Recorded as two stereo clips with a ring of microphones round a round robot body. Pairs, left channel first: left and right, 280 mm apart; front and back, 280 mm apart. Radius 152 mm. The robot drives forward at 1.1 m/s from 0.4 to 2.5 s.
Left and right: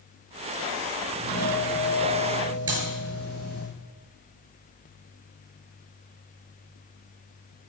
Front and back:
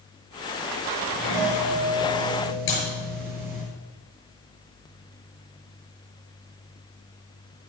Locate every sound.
1.1 s a doorbell: 160° left, 3.5 m; by 3.6 s 165° left, 5 m
2.7 s a clap: 55° right, 6 m